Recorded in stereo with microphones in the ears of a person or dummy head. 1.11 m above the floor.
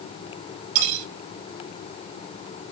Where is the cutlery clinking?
50° right (ahead or behind), 2.5 m.